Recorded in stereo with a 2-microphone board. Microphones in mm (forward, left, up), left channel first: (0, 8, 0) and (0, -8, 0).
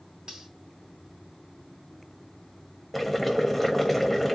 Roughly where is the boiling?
Centre.